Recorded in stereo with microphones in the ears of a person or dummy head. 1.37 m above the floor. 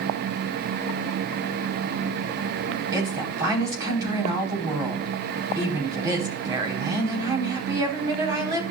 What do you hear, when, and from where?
2.9 s a woman speaking: 20° right (ahead or behind), 4.5 m